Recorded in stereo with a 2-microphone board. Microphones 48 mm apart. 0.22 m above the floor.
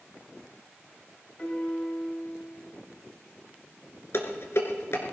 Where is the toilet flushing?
No toilet flushing in this recording.